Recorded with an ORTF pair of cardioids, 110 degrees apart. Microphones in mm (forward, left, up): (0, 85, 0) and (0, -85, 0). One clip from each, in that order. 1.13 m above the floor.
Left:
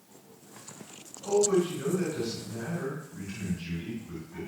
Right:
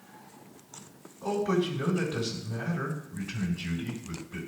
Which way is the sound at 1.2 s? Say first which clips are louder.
Left 3 dB; 65° right.